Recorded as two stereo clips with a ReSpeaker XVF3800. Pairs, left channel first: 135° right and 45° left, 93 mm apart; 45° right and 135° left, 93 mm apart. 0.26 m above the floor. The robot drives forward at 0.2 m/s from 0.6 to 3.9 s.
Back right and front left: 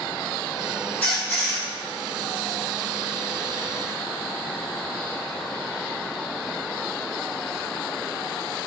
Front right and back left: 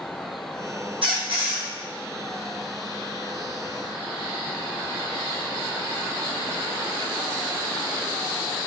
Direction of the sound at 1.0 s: 155° left.